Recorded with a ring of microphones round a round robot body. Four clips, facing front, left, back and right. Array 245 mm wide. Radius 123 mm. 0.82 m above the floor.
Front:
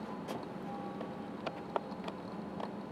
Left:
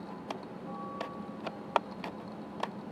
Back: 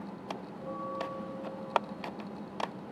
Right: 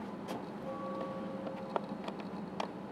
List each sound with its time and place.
0.6 s a bell: 150° right